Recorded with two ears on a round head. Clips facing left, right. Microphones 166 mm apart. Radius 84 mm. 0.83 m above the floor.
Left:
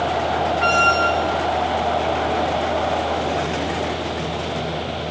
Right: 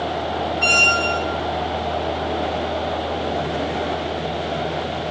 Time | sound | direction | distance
0.6 | a squeak | 80° right | 1.4 m